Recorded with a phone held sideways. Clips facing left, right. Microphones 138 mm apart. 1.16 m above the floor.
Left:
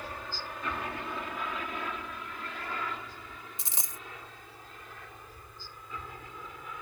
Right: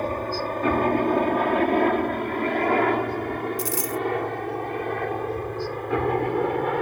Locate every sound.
0.0 s a helicopter: 55° right (ahead or behind); by 6.8 s 70° right (ahead or behind)
3.6 s a dropped coin: 25° left (ahead or behind)